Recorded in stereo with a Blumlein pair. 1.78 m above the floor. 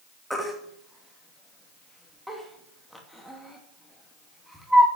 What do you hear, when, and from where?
0.3 s a baby crying: straight ahead, 2.5 m